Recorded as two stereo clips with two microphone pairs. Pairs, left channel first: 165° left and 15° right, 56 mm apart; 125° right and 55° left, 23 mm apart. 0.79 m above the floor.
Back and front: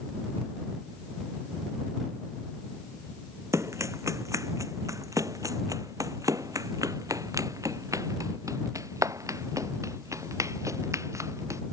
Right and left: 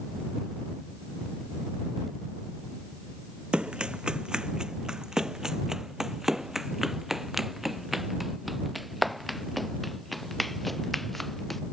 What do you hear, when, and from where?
3.5 s running footsteps: 15° left; by 11.6 s 45° right